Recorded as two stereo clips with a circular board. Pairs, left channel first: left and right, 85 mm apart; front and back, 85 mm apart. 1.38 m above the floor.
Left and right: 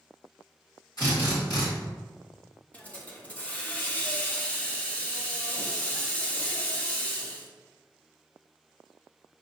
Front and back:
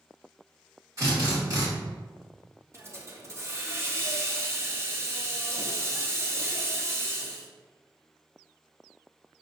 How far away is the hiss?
About 0.7 m.